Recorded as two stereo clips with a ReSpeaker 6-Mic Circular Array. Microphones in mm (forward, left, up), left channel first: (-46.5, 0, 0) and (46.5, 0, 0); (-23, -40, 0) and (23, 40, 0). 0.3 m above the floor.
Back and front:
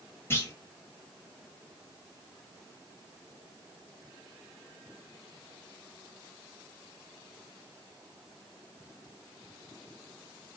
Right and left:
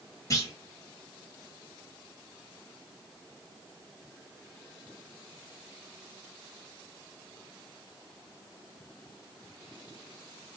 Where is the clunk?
135° right, 1.0 m.